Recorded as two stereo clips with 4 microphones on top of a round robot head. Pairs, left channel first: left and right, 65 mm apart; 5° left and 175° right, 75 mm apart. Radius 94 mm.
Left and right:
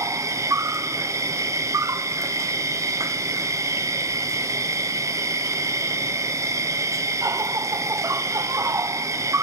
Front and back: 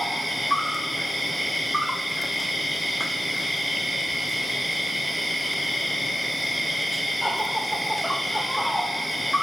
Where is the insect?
85° right, 0.7 m.